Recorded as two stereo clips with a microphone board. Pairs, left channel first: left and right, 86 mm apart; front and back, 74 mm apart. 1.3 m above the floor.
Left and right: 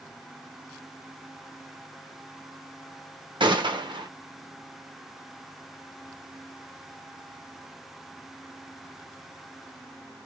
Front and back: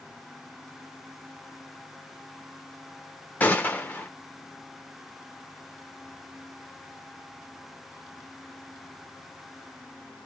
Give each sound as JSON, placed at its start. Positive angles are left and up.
{"t": 3.4, "sound": "a gunshot", "azimuth_deg": -70, "distance_m": 0.7}